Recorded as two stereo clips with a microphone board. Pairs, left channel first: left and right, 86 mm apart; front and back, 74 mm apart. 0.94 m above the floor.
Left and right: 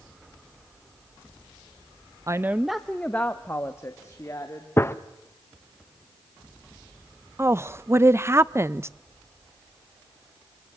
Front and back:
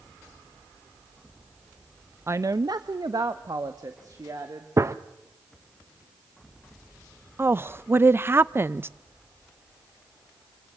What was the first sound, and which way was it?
A woman speaking, 130° right.